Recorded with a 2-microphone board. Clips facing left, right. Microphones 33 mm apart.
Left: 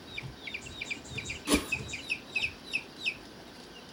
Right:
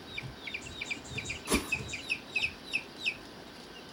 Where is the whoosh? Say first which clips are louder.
Left 3 dB; 60° left (ahead or behind), 0.9 m.